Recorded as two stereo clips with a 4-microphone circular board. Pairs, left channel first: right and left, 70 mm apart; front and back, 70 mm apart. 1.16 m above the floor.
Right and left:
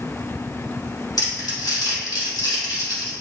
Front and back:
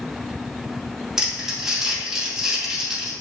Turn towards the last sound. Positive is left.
turn(degrees=-100)